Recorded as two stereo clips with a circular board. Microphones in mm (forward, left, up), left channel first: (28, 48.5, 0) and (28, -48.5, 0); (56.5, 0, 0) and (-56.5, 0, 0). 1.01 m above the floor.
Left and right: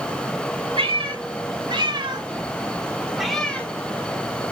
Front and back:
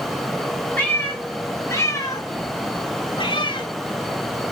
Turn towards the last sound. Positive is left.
turn(degrees=25)